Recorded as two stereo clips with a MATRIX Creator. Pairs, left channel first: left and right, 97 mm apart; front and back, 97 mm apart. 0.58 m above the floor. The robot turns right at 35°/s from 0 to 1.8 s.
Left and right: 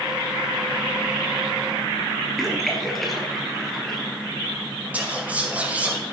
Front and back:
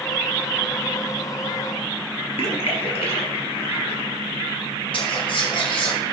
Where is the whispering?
15° right, 2 m.